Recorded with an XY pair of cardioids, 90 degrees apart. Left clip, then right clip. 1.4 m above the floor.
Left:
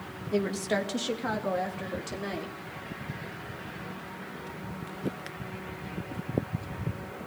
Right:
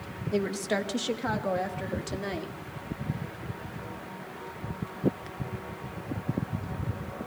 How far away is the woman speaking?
About 2 m.